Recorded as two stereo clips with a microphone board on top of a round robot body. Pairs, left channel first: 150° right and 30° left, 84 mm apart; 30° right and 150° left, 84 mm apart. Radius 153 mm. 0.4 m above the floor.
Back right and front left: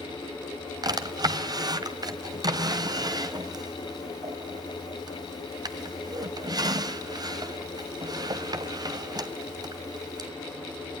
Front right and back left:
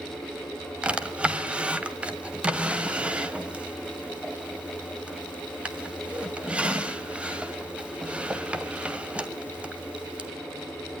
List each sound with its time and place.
0.8 s a drawer: 70° left, 1.7 m